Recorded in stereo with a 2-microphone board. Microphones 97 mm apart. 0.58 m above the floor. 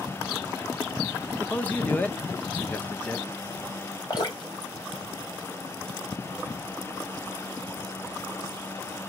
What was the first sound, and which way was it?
A man speaking, 15° left (ahead or behind).